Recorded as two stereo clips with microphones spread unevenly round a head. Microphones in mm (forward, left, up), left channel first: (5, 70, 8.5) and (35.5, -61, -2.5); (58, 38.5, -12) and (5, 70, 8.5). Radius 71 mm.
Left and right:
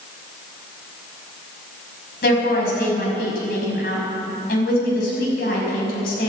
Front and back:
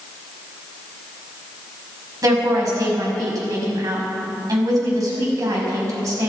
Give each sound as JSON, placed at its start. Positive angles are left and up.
{"t": 2.2, "sound": "a woman speaking", "azimuth_deg": 130, "distance_m": 5.5}